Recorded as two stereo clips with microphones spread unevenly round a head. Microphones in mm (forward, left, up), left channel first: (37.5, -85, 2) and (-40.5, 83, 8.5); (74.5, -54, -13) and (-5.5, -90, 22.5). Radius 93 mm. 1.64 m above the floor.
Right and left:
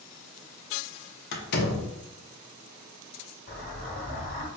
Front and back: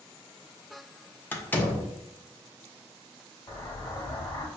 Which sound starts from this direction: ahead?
An explosion, at 3.5 s.